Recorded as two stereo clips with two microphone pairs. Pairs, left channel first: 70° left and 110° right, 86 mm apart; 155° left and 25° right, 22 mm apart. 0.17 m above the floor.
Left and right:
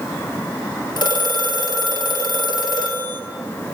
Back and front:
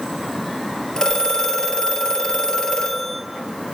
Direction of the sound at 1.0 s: 100° left.